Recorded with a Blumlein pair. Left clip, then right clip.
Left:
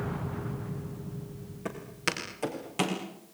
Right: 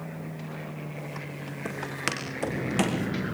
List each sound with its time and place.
1.6 s footsteps: 10° right, 5 m; by 3.0 s 15° right, 4.5 m